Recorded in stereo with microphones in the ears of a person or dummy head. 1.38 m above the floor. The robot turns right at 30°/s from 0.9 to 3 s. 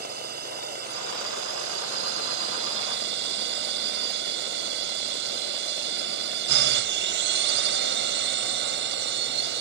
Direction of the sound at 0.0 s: 120° right.